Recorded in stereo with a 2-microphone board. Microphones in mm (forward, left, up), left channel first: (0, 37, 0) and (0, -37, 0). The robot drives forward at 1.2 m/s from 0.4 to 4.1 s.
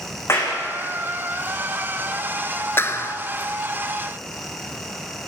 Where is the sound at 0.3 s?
35° left (ahead or behind), 6 m; by 0.6 s 40° left (ahead or behind), 6 m.